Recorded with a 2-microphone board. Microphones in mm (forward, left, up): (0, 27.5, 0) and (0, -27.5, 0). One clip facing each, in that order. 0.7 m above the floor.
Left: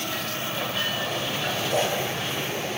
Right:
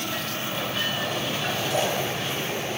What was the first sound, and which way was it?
A splash, 35° left (ahead or behind).